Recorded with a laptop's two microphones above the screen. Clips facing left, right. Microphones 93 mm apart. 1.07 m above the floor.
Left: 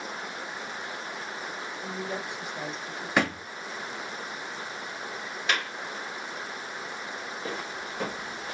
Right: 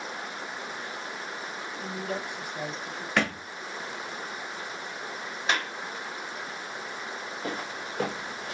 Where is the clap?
30° right (ahead or behind), 2.5 m.